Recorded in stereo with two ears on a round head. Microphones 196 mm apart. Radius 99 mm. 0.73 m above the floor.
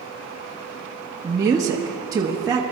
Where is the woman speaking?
15° right (ahead or behind), 1.0 m.